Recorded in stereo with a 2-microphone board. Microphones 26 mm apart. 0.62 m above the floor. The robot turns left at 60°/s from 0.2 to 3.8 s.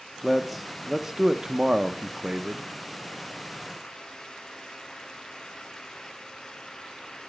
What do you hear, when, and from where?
0.2 s a man speaking: 10° left (ahead or behind), 0.6 m; by 2.7 s 20° right (ahead or behind), 0.6 m